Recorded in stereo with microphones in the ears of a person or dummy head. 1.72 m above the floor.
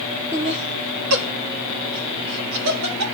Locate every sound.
0.3 s laughter: 5° right (ahead or behind), 0.5 m; by 3.0 s 75° right (ahead or behind), 3 m